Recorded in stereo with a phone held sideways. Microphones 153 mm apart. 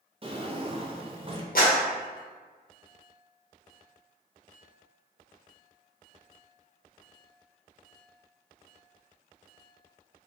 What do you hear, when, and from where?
0.2 s a drawer: 35° right (ahead or behind), 0.6 m
1.6 s a clap: 70° left (ahead or behind), 1.1 m